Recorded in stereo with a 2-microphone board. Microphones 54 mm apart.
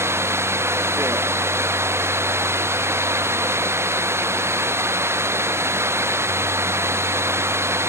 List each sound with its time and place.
0.0 s running water: 55° right (ahead or behind)